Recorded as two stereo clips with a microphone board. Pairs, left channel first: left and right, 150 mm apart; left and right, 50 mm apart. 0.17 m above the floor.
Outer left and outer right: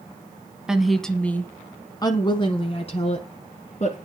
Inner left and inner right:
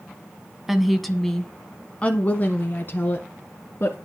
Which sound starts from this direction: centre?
A woman speaking, at 0.7 s.